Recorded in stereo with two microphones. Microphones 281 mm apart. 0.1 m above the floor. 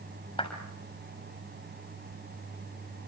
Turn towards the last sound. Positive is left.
turn(degrees=20)  # may be behind; listen again after turning